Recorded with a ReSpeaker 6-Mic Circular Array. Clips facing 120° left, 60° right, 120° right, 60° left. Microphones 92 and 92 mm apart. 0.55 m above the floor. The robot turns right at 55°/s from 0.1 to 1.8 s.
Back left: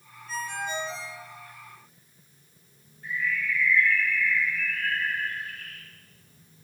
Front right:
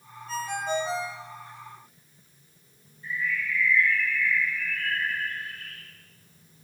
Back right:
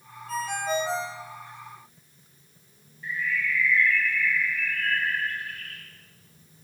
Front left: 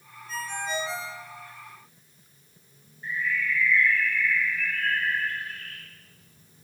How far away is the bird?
About 2.5 m.